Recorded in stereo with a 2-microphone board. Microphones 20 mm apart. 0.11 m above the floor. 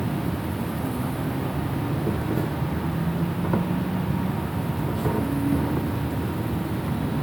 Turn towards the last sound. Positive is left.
turn(degrees=15)  # may be behind; listen again after turning